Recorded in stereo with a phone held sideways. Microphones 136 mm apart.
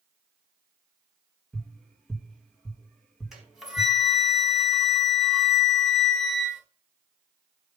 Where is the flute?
Centre (ahead or behind), 4.5 m.